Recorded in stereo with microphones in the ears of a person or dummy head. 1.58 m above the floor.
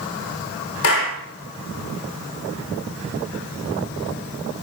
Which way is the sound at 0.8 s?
80° left.